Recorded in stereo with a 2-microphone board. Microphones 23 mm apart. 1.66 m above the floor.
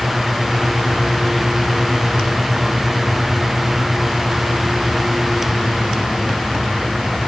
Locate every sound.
Only background noise.